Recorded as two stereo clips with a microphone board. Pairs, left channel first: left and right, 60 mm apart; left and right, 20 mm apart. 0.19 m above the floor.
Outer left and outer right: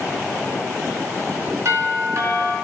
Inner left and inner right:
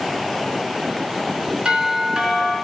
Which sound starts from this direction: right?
A doorbell, at 1.6 s.